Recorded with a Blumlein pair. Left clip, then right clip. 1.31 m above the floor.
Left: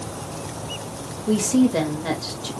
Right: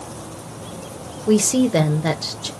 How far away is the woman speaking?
About 0.7 m.